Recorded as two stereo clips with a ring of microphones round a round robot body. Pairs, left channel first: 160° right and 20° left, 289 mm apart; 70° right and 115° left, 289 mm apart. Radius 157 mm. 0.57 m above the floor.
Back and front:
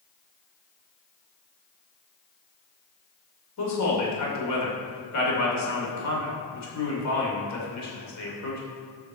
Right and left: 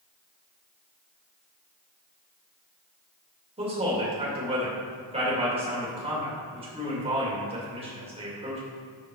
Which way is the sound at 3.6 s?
Straight behind.